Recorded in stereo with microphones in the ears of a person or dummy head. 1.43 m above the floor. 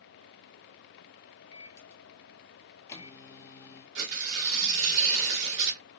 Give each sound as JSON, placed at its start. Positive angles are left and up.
{"t": 1.5, "sound": "a microwave", "side_deg": 20, "distance_m": 0.7}
{"t": 4.0, "sound": "tearing paper", "side_deg": -65, "distance_m": 1.3}